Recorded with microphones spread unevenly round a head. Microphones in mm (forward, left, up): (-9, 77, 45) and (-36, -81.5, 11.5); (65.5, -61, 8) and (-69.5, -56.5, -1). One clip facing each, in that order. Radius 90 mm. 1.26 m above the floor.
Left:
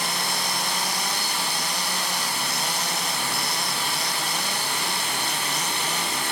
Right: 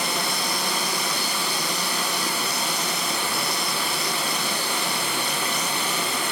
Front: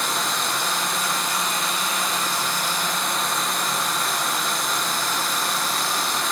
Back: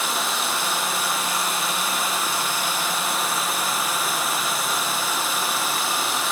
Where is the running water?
95° right, 0.7 m.